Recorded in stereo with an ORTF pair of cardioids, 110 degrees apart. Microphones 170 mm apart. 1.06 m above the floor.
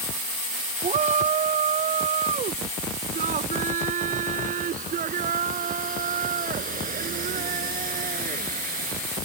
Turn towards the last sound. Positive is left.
turn(degrees=-55)